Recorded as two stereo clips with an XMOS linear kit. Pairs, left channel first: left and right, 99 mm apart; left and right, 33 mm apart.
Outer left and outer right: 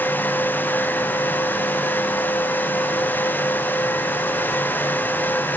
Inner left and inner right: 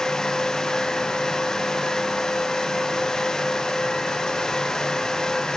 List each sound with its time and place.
Only background noise.